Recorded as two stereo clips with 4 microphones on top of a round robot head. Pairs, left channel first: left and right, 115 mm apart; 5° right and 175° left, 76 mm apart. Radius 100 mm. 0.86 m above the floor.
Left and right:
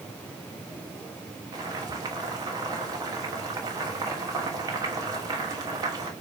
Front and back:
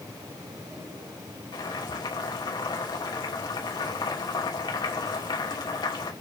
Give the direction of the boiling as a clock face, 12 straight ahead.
1 o'clock.